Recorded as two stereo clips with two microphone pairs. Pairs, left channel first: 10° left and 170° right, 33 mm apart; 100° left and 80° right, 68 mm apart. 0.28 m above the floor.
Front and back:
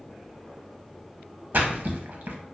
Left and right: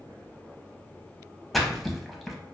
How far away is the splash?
About 0.5 m.